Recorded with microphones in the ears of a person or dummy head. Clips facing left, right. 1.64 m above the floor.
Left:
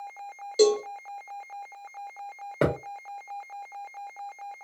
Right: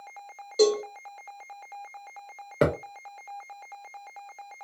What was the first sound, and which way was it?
A cowbell, 10° left (ahead or behind).